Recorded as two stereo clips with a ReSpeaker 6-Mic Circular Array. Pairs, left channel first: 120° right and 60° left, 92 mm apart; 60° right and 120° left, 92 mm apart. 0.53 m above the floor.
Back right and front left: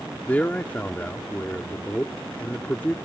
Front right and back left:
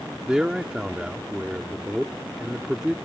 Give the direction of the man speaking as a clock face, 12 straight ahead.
6 o'clock.